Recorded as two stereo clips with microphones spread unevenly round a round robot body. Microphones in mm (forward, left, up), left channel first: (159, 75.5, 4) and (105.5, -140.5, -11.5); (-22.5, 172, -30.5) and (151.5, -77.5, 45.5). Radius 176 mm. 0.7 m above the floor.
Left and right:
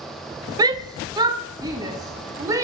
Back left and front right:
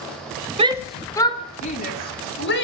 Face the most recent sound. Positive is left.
turn(degrees=175)